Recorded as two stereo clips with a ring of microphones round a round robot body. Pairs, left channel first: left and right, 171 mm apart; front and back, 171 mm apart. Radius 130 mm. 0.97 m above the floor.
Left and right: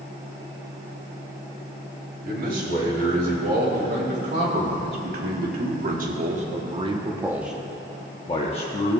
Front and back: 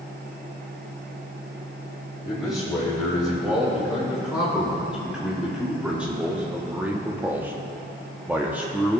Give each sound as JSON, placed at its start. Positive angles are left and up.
{"t": 2.2, "sound": "a man speaking", "azimuth_deg": -90, "distance_m": 3.0}